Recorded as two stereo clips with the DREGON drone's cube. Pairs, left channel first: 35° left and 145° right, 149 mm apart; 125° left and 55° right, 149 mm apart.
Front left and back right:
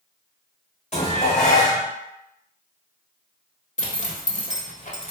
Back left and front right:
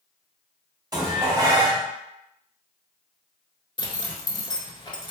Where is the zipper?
70° left, 1.0 m.